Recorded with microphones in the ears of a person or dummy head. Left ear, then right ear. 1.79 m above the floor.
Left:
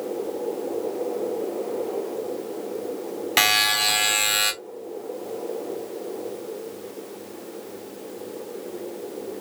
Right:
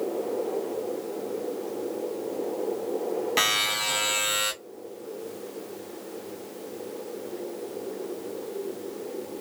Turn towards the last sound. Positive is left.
turn(degrees=15)  # may be behind; listen again after turning